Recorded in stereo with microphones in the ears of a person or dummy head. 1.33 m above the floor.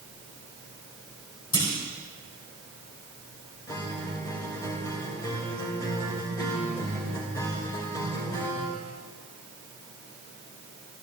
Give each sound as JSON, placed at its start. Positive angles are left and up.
{"t": 1.5, "sound": "a clunk", "side_deg": 25, "distance_m": 3.5}
{"t": 3.7, "sound": "a guitar", "side_deg": 20, "distance_m": 3.0}